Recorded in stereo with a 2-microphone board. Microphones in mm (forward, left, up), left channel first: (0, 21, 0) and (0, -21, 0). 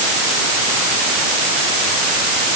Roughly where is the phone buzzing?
No phone buzzing in this recording.